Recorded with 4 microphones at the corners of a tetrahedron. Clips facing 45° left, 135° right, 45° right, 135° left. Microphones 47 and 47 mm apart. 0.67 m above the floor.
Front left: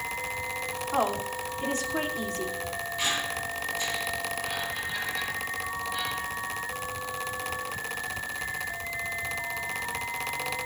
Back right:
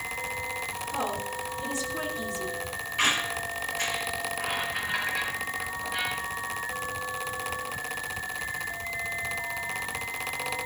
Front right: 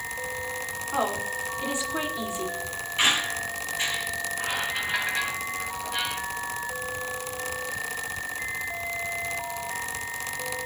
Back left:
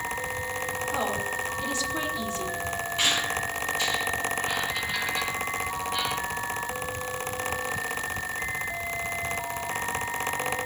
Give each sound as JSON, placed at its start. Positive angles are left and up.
{"t": 0.9, "sound": "a woman speaking", "azimuth_deg": 20, "distance_m": 2.5}
{"t": 3.0, "sound": "a squeak", "azimuth_deg": -110, "distance_m": 3.5}